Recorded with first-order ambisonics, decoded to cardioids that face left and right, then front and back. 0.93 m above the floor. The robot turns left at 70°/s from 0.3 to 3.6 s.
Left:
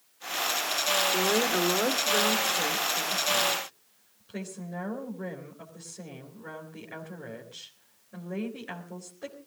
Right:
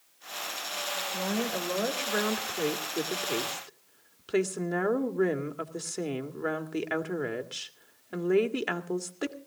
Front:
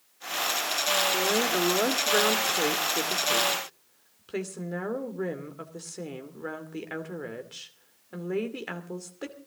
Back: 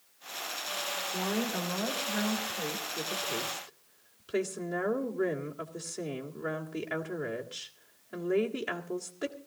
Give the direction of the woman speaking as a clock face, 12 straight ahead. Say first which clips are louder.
Left 6 dB, front 8 dB; 9 o'clock.